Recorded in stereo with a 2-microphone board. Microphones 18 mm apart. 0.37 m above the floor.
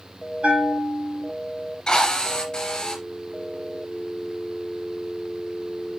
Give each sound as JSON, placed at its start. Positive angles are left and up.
{"t": 0.4, "sound": "a bell", "side_deg": -85, "distance_m": 5.0}
{"t": 1.9, "sound": "a drill", "side_deg": 45, "distance_m": 3.0}